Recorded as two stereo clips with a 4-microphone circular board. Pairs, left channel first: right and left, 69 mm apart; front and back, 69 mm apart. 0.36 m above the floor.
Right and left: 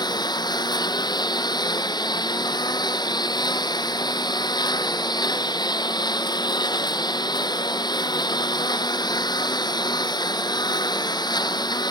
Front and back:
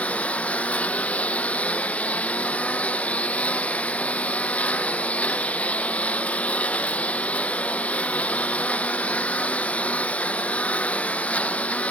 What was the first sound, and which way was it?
A lawn mower, 75° right.